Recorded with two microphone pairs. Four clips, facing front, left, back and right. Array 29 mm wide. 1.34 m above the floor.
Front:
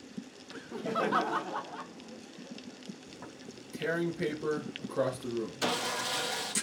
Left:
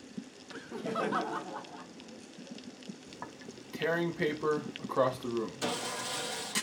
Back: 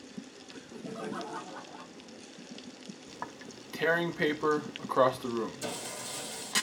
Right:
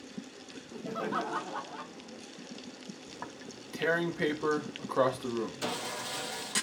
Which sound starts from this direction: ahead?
Sawing, at 5.6 s.